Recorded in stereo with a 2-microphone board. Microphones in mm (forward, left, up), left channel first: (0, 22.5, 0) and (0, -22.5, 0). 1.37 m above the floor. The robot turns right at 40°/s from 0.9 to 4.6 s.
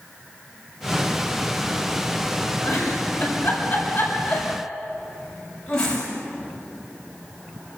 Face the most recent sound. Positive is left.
turn(degrees=20)  # may be behind; listen again after turning